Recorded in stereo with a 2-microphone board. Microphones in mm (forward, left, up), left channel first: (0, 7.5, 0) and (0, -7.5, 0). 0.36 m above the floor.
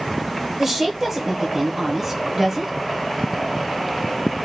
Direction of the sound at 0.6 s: 30° right (ahead or behind).